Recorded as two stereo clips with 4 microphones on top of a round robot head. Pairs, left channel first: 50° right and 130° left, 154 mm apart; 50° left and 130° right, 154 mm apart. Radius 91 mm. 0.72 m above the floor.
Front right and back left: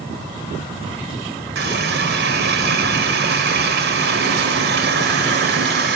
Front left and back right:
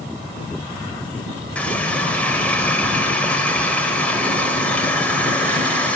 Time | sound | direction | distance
1.6 | a running tap | 130° left | 2 m